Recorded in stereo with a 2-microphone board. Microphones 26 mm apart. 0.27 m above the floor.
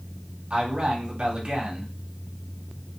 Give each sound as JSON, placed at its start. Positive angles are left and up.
{"t": 0.5, "sound": "a man speaking", "side_deg": -45, "distance_m": 1.9}